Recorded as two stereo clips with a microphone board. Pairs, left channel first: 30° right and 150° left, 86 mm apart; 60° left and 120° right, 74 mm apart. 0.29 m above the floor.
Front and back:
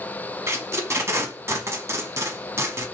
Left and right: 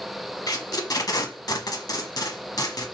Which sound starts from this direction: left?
Tape being pulled, at 0.5 s.